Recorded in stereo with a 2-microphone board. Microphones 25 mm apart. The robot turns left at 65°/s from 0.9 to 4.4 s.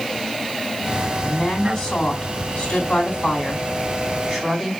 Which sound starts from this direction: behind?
A woman speaking, at 1.2 s.